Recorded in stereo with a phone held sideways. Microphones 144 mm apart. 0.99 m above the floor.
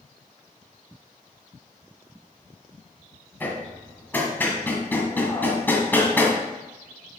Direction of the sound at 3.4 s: 15° left (ahead or behind).